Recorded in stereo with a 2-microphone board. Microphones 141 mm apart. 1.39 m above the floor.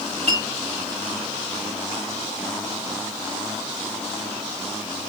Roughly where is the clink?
Right.